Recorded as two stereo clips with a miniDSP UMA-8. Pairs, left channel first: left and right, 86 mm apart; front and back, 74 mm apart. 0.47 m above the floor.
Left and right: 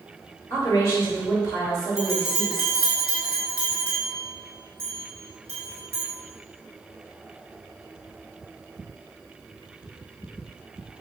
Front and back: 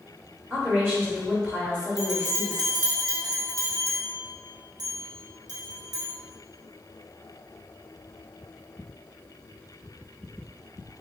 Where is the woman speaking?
125° left, 1.2 m.